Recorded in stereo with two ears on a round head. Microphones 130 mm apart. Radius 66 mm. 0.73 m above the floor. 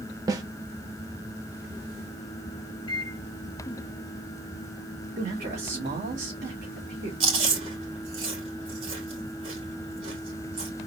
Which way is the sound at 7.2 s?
40° right (ahead or behind).